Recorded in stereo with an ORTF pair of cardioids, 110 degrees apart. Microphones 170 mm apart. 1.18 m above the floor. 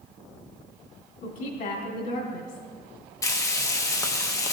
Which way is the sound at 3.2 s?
20° left.